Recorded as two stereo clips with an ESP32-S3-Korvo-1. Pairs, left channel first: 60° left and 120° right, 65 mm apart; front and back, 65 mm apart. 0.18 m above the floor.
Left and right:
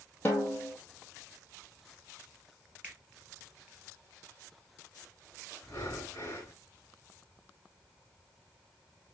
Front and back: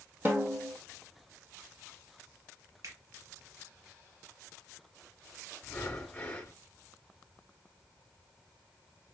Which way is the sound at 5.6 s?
50° left.